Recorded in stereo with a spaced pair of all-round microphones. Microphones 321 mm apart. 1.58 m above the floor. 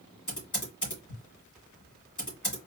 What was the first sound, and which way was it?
Typing on a keyboard, 65° left (ahead or behind).